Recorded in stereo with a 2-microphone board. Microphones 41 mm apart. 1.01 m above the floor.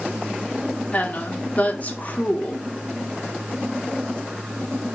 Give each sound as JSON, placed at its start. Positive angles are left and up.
{"t": 0.9, "sound": "a woman speaking", "side_deg": 35, "distance_m": 1.1}